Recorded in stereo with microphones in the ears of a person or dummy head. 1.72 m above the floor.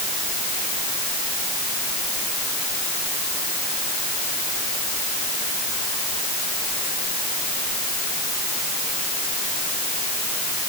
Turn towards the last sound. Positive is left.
No sound to turn to.